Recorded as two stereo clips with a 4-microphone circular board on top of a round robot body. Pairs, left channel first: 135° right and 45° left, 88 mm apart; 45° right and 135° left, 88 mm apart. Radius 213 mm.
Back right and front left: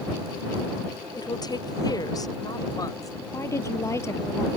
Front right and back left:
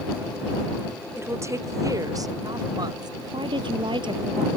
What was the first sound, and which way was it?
A woman speaking, 165° right.